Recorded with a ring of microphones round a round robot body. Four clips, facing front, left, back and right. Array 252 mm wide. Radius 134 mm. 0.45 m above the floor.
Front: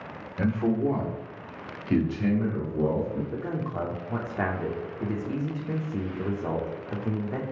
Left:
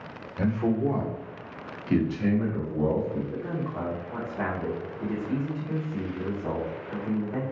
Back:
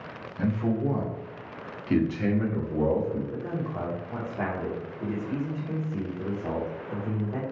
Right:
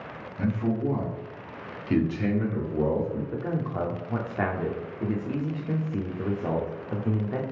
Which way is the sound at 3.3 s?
55° right.